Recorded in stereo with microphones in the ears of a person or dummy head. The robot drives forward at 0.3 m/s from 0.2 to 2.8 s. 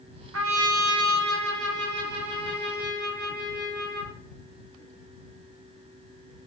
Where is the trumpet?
80° right, 1.0 m; by 4.2 s 60° right (ahead or behind), 1.1 m.